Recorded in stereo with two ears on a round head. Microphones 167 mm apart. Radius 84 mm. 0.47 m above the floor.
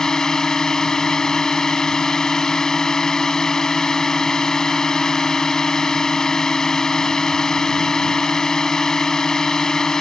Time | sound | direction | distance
0.0 | a drone | 5° left (ahead or behind) | ?